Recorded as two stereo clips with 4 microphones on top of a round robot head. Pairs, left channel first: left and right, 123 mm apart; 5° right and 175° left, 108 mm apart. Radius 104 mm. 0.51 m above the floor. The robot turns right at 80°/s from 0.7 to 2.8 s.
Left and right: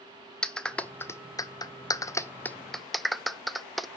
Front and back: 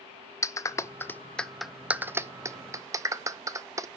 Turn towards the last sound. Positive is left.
turn(degrees=180)